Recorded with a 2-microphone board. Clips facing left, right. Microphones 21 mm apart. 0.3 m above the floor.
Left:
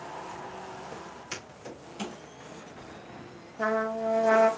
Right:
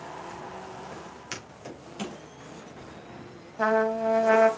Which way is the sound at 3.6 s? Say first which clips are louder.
Right 4 dB; 35° right (ahead or behind).